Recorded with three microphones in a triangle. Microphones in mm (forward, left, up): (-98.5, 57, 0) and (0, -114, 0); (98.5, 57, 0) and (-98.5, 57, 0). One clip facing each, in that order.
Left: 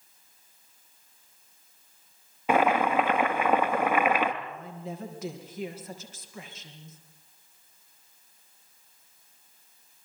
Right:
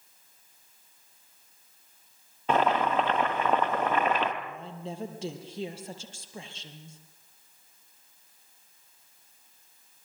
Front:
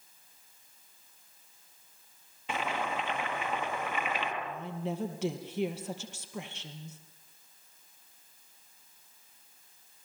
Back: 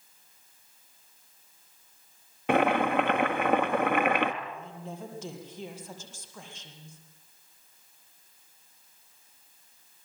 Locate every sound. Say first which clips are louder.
2.5 s boiling: left 2 dB, back 11 dB; 160° right, 1.8 m
4.4 s a woman speaking: even, front 4 dB; straight ahead, 4 m